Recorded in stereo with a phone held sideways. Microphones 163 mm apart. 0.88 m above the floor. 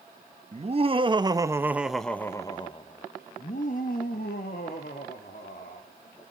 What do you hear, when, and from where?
0.5 s laughter: 40° right (ahead or behind), 1.3 m; by 5.9 s 70° left (ahead or behind), 2.5 m